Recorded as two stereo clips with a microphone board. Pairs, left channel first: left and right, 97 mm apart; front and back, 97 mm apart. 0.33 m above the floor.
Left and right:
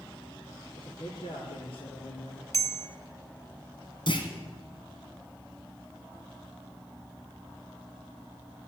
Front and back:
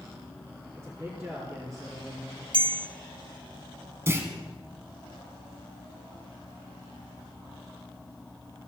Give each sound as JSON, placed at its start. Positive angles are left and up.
{"t": 0.8, "sound": "a man speaking", "azimuth_deg": 115, "distance_m": 5.5}
{"t": 2.5, "sound": "a bell", "azimuth_deg": 145, "distance_m": 0.6}
{"t": 4.1, "sound": "a clunk", "azimuth_deg": 115, "distance_m": 2.5}